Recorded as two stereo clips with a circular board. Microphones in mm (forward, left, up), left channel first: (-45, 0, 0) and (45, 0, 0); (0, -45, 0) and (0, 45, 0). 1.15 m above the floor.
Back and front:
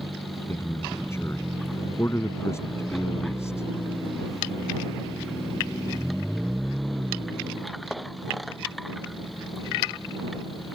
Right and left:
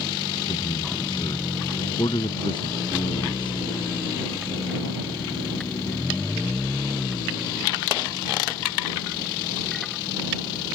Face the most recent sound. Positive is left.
turn(degrees=-120)